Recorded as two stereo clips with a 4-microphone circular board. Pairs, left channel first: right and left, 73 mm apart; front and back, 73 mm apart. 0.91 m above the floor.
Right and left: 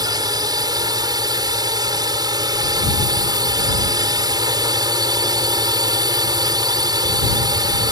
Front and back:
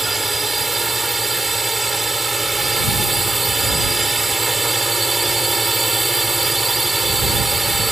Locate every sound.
0.0 s a drone: 90° left